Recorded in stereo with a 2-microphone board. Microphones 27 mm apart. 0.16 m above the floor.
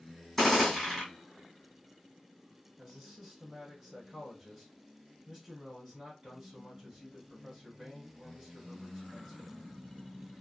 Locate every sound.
0.4 s a gunshot: 10° left (ahead or behind), 1.8 m
2.8 s a man speaking: 20° right (ahead or behind), 2.5 m